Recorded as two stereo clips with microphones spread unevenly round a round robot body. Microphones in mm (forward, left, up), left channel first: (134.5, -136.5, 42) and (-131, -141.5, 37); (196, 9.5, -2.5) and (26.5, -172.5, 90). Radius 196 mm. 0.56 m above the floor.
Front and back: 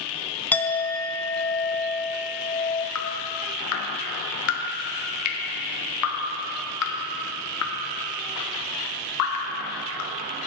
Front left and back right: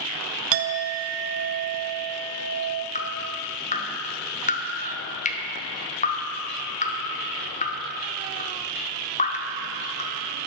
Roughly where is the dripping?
Ahead.